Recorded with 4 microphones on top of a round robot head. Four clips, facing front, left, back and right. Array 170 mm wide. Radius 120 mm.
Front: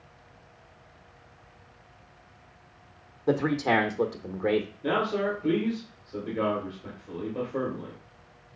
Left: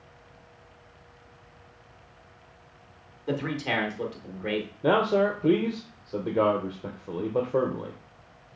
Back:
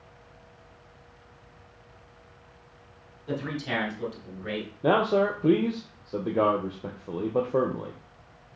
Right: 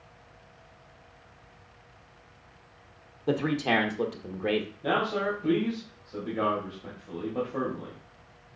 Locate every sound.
3.3 s a man speaking: 30° right, 1.1 m
4.8 s a man speaking: 145° left, 1.1 m